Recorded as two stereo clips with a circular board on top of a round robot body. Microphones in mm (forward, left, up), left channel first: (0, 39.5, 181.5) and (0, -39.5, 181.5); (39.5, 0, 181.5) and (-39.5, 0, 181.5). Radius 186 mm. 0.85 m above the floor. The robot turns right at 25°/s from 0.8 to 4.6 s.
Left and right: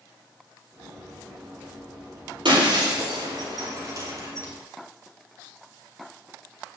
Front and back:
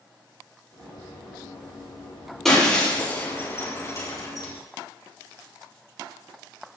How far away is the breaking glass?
About 6.5 m.